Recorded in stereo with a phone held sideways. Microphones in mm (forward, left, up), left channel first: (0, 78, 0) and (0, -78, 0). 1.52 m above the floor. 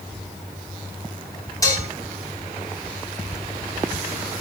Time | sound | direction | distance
1.6 | dishes clattering | 20° left (ahead or behind) | 3.5 m